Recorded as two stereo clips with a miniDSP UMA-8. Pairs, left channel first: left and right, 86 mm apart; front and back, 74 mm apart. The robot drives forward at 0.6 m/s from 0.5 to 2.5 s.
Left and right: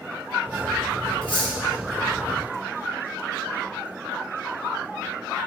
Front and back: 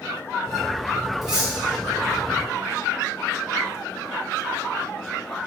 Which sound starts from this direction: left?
Cutlery clinking, at 1.2 s.